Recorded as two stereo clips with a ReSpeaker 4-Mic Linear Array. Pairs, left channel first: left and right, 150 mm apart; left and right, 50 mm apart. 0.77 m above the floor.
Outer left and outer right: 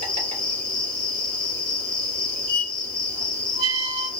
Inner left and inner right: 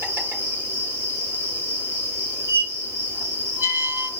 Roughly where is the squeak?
Right.